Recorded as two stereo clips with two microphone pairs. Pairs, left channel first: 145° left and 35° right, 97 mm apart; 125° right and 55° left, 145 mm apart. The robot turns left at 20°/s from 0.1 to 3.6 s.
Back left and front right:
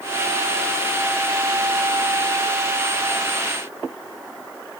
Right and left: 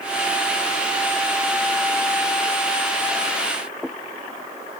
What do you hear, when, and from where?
Only background noise.